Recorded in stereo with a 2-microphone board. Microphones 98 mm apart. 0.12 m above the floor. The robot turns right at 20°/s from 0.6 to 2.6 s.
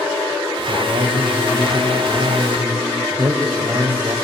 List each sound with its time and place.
0.7 s a man speaking: 75° right, 4.5 m; by 4.2 s 35° right, 4.5 m